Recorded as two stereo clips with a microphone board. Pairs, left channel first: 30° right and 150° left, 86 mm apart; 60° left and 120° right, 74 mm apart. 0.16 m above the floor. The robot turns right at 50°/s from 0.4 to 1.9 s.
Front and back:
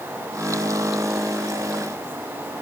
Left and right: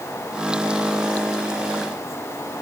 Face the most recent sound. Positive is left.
No sound to turn to.